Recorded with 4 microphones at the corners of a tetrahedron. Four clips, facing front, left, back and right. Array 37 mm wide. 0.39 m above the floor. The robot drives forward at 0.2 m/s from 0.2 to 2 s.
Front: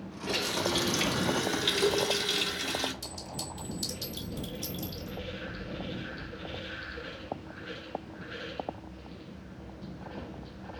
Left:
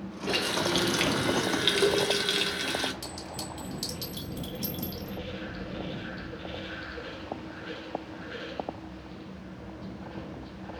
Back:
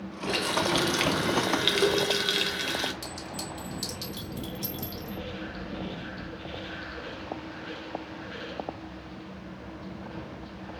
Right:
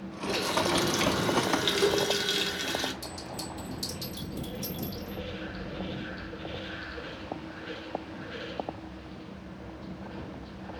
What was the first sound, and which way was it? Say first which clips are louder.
A running tap: even, back 4 dB; 120° left.